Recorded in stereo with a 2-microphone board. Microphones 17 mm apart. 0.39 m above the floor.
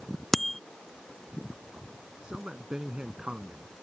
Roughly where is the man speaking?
Right.